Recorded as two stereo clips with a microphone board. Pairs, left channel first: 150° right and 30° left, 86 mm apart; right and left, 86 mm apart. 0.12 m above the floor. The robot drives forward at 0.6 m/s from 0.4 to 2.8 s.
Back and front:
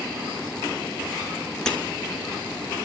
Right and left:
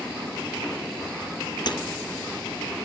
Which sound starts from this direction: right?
Breaking glass, at 1.7 s.